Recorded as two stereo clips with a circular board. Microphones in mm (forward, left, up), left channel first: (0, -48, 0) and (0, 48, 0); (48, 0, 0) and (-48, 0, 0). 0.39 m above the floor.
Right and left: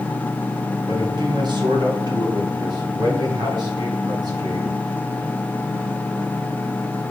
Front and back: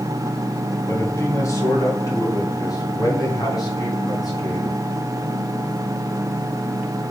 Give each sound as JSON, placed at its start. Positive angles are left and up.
{"t": 0.9, "sound": "a man speaking", "azimuth_deg": 60, "distance_m": 2.0}